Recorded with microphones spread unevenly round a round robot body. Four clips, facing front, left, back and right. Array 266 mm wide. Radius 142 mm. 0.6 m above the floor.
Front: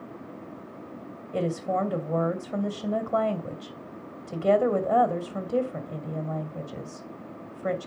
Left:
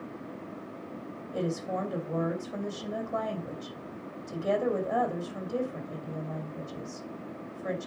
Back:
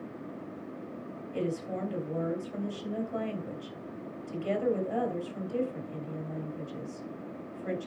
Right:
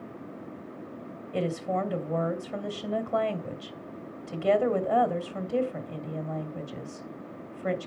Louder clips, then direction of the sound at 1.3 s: Right 3 dB, front 7 dB; 20° right.